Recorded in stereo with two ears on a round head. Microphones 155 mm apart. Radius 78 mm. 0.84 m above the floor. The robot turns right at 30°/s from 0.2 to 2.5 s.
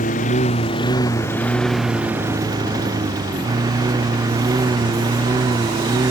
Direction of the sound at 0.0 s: 135° left.